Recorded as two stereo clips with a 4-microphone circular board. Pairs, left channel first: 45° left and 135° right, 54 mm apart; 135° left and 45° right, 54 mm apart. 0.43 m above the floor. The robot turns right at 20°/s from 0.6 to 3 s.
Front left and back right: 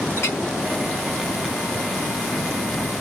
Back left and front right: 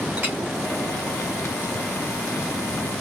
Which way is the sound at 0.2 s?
5° left.